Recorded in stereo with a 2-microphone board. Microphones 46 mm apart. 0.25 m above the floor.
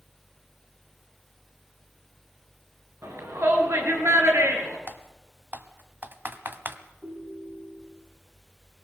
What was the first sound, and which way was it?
A shout, 70° right (ahead or behind).